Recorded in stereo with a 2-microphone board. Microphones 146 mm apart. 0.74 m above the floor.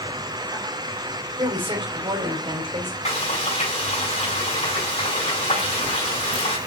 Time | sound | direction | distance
1.4 | a woman speaking | 35° right (ahead or behind) | 4 m
3.0 | frying | 50° left (ahead or behind) | 5.5 m